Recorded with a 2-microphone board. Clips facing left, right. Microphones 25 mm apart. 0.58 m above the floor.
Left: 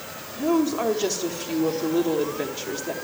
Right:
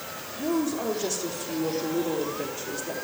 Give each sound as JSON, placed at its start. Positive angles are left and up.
{"t": 0.4, "sound": "a woman speaking", "side_deg": 50, "distance_m": 1.2}